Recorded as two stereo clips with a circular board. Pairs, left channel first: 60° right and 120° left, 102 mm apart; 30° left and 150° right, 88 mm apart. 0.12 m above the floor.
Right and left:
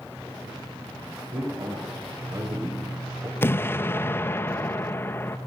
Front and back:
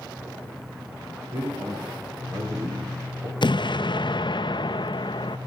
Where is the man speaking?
150° left, 5 m; by 3.3 s 160° left, 4 m.